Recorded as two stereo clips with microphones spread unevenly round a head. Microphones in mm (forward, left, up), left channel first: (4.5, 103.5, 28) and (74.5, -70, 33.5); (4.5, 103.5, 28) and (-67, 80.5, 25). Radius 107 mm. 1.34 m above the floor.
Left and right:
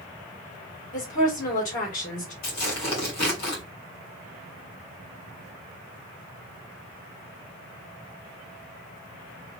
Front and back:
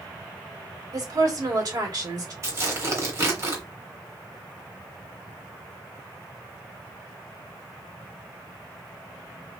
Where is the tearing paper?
160° left, 2.5 m.